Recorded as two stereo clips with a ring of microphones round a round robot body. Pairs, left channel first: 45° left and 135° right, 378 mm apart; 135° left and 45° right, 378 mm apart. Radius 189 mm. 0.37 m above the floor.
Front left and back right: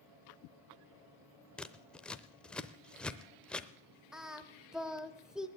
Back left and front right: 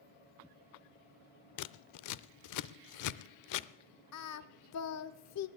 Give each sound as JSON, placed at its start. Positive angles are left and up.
{"t": 1.6, "sound": "scissors", "azimuth_deg": 130, "distance_m": 0.6}
{"t": 4.1, "sound": "singing", "azimuth_deg": 135, "distance_m": 0.8}